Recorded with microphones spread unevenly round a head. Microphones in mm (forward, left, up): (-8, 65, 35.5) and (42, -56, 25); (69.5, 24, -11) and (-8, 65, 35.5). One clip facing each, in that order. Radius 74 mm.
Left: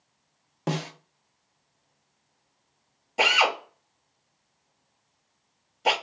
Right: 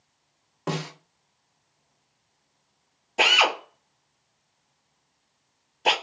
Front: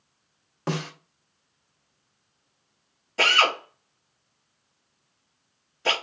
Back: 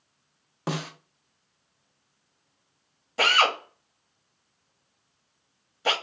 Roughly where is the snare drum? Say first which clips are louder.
Even, front 2 dB; behind left.